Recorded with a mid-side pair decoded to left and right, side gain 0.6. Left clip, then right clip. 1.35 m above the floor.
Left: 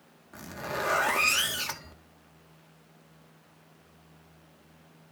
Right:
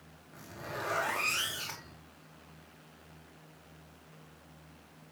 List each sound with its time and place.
0.3 s a zipper: 45° left, 3 m